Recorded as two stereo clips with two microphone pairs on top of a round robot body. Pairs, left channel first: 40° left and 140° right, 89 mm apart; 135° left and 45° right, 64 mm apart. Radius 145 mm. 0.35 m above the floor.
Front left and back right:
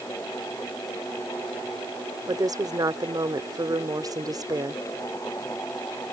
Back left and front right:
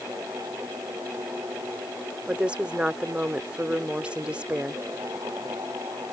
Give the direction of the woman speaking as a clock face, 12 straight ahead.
3 o'clock.